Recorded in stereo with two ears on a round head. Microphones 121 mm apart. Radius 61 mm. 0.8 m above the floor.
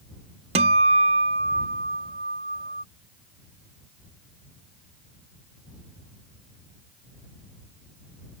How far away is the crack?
I don't hear a crack.